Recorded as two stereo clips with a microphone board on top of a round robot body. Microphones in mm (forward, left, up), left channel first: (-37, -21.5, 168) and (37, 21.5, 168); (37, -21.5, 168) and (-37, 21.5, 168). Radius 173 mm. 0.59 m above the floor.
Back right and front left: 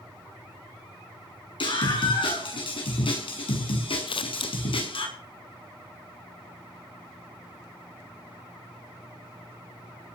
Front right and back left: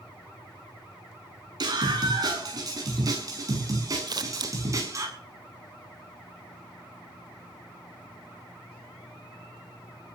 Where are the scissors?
170° right, 1.4 m.